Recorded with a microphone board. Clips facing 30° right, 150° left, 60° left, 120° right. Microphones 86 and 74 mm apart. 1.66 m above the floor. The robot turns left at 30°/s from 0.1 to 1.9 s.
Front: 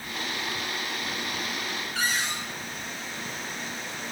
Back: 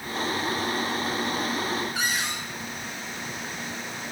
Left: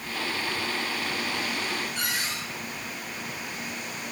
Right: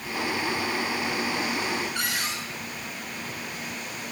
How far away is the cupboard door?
About 3.5 m.